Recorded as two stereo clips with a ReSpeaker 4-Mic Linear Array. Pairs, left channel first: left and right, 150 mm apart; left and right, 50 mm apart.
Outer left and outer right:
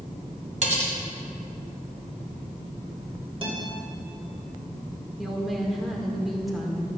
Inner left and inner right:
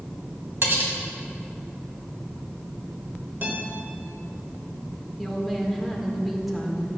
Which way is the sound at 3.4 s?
40° right (ahead or behind).